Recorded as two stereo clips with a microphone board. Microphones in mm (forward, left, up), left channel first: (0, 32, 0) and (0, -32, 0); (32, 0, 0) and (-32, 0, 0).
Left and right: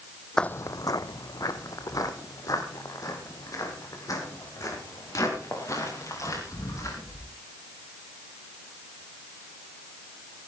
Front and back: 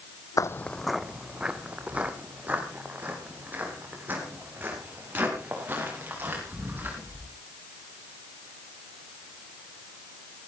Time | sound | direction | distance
0.4 | footsteps | 10° left | 0.5 m